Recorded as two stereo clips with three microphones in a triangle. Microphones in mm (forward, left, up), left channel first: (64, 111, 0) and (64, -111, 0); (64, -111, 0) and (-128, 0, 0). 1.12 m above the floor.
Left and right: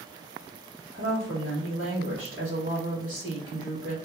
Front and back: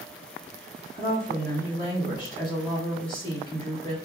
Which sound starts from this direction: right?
A woman speaking, at 0.9 s.